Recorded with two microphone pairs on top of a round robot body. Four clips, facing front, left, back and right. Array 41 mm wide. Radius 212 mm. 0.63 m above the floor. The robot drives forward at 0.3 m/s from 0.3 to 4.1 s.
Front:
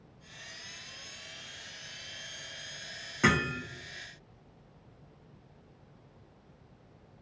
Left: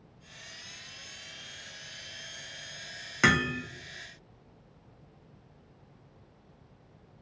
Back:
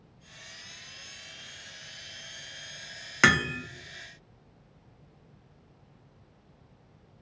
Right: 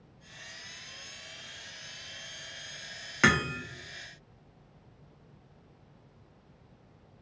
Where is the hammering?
175° right, 1.2 m.